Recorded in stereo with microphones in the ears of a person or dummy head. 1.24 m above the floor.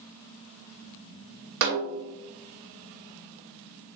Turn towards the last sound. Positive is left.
turn(degrees=-50)  # may be behind; listen again after turning